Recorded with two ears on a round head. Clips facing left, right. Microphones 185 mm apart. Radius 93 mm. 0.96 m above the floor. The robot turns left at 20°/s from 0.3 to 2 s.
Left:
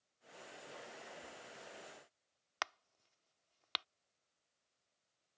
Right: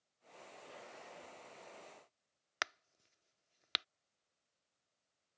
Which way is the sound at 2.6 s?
20° right (ahead or behind).